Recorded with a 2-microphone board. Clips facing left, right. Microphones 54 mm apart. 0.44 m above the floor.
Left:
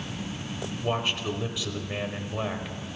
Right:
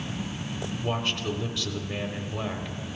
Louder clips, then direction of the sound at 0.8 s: Left 2 dB; 5° left (ahead or behind).